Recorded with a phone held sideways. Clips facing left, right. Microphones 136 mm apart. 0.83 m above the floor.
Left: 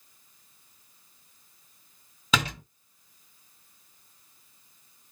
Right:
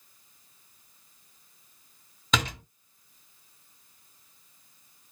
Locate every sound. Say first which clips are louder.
2.3 s a door slam: left 1 dB; 5° left (ahead or behind), 1.5 m